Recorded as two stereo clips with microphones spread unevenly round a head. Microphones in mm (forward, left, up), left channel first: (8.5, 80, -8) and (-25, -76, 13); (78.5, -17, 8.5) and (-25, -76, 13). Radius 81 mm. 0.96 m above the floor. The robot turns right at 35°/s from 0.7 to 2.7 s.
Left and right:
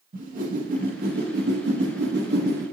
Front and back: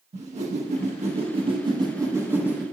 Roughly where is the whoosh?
Behind right.